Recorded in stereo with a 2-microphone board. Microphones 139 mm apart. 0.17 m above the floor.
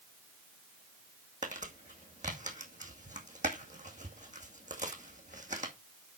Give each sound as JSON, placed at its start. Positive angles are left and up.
{"t": 1.4, "sound": "crumpling", "side_deg": -65, "distance_m": 2.0}